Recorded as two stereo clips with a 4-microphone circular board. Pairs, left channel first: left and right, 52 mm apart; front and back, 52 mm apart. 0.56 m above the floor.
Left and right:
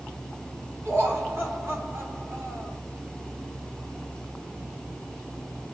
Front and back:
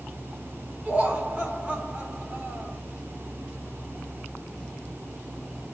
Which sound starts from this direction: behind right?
Laughter, at 0.8 s.